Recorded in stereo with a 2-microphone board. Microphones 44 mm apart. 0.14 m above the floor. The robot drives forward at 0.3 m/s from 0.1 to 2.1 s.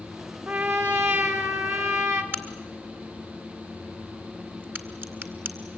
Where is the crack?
45° right (ahead or behind), 1.8 m.